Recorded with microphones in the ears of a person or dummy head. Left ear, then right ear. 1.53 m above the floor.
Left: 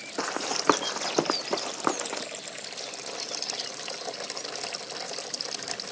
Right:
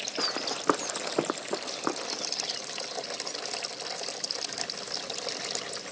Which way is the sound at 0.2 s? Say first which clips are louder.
Left 2 dB; 20° left (ahead or behind).